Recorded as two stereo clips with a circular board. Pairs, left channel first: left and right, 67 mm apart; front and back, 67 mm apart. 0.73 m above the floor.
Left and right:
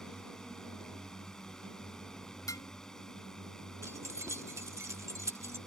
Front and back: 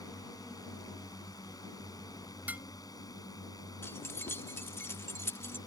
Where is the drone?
10° left.